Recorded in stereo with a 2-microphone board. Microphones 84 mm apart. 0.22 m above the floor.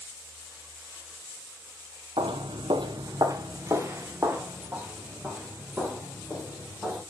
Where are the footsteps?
75° right (ahead or behind), 1.0 m; by 7.0 s 10° right (ahead or behind), 5 m.